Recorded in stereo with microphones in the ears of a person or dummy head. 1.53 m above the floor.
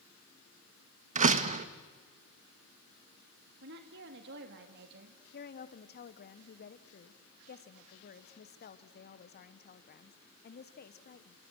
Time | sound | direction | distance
1.1 | a door slam | 40° right (ahead or behind) | 1.3 m
3.6 | a woman speaking | 60° right (ahead or behind) | 2 m
5.3 | a woman speaking | 45° left (ahead or behind) | 1.3 m